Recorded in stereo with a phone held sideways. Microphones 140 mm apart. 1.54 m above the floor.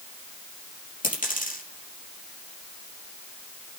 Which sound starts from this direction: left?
A dropped coin, at 1.0 s.